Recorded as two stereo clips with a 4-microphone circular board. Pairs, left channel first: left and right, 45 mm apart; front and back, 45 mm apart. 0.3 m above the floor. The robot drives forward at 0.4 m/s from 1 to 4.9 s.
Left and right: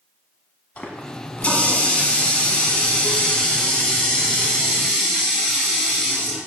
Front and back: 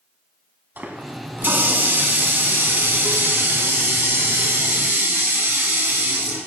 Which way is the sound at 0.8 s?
140° left.